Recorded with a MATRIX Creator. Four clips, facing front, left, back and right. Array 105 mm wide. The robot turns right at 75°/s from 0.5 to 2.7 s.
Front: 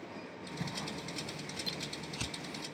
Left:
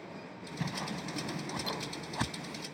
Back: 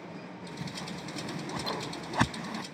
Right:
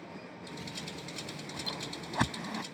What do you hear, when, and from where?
0.6 s a whoosh: 80° left; by 2.6 s 130° right